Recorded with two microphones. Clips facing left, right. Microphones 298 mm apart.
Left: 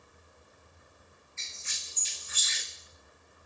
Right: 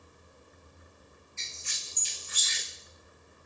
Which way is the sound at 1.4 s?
40° right (ahead or behind).